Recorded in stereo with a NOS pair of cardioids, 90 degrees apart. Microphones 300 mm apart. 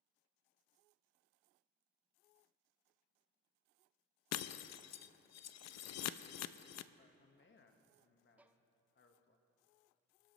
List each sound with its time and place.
4.3 s breaking glass: 60° left, 0.6 m
7.0 s a man speaking: 40° left, 1.5 m
8.4 s a violin: 5° right, 0.6 m